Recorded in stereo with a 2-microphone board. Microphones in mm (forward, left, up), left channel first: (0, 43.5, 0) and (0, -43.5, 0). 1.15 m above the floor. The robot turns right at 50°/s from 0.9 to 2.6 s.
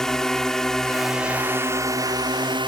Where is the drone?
175° left; by 2.7 s 100° right.